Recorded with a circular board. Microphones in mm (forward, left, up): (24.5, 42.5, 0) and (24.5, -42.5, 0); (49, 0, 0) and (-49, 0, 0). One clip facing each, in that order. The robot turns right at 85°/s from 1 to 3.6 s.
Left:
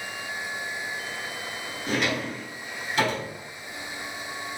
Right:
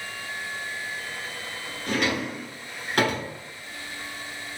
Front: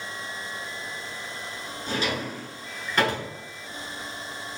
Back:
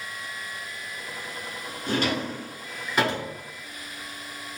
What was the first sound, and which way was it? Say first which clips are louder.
A drawer: right 1 dB, back 3 dB; 165° left.